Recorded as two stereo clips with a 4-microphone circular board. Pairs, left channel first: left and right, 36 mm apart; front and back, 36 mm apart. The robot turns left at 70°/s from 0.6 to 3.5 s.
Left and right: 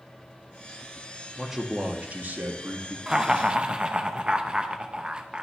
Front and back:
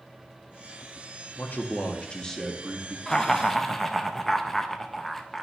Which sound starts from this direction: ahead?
A man speaking, at 1.4 s.